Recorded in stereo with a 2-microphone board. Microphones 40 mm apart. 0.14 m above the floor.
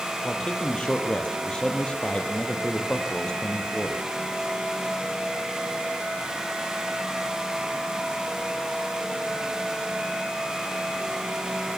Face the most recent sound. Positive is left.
turn(degrees=20)  # may be behind; listen again after turning